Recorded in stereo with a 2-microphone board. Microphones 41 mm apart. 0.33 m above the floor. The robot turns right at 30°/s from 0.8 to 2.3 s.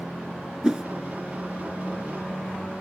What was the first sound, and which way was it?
A whoosh, 20° right (ahead or behind).